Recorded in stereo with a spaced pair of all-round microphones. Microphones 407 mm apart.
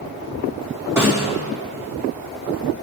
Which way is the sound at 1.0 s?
5° right (ahead or behind).